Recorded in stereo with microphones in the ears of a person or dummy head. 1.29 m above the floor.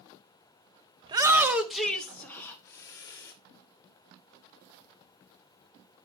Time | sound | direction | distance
1.0 | a shout | 25° right (ahead or behind) | 0.8 m